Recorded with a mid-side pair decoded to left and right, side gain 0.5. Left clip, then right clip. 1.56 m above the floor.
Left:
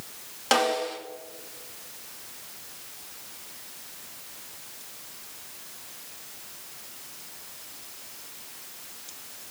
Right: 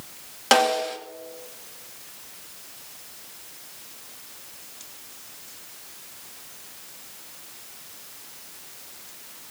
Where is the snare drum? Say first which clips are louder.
Right 4 dB; 30° right, 2.5 m.